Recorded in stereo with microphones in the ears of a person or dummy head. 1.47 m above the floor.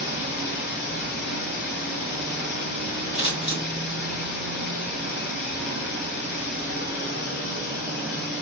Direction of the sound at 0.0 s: 60° left (ahead or behind).